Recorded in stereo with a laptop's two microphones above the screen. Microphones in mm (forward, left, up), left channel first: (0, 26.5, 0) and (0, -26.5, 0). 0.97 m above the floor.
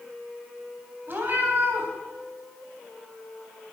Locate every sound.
1.1 s a cat meowing: 50° right (ahead or behind), 3 m